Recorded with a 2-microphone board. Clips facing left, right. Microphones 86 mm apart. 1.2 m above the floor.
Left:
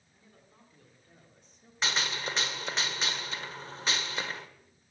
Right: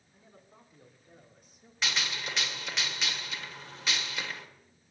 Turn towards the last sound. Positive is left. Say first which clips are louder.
# left 2 dB
turn(degrees=35)  # may be behind; listen again after turning